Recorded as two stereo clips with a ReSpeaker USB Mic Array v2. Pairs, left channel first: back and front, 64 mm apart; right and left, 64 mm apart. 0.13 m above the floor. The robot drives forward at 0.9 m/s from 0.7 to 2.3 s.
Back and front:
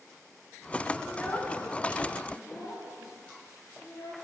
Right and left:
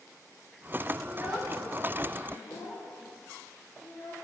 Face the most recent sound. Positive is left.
turn(degrees=160)